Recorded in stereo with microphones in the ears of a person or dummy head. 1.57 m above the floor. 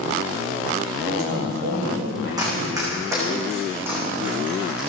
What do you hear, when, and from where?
1.0 s a man speaking: 85° right, 6.5 m
2.4 s running footsteps: 20° right (ahead or behind), 6 m; by 4.9 s centre (ahead or behind), 5 m